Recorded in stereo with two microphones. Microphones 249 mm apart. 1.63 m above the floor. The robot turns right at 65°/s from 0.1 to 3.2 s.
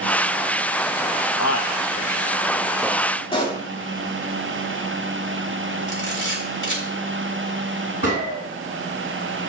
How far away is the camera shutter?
About 3.5 m.